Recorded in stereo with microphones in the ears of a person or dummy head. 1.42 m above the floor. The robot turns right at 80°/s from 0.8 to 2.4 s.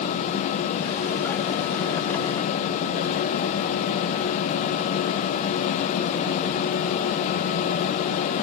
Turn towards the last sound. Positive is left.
No sound to turn to.